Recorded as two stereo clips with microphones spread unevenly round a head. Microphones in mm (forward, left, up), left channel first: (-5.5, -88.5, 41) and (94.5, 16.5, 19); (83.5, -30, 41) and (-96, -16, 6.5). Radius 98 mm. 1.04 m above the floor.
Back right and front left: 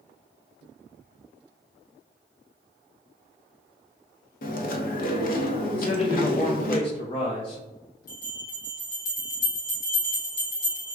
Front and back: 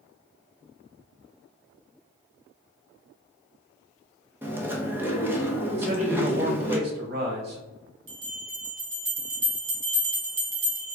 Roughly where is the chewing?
Right.